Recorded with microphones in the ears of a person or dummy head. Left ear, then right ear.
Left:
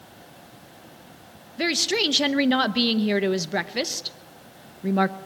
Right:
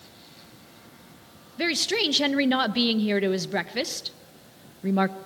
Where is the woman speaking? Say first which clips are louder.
Left 2 dB; 5° left (ahead or behind), 0.8 m.